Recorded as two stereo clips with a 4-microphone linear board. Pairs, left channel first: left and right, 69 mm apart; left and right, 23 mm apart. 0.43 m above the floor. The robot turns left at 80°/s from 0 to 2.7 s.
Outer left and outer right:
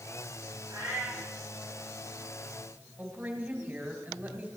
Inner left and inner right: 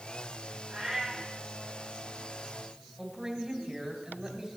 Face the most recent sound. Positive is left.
turn(degrees=-20)  # may be behind; listen again after turning